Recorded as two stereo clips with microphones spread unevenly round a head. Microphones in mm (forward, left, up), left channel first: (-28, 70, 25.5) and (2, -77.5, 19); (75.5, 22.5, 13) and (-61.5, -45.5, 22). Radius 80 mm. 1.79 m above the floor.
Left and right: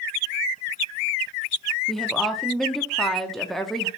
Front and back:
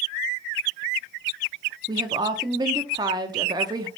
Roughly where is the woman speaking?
Behind.